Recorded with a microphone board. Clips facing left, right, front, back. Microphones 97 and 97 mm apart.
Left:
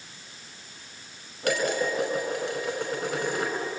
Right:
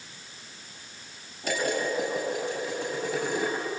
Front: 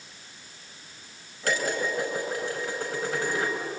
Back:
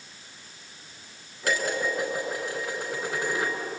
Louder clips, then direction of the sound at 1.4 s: Left 2 dB, even; 110° left.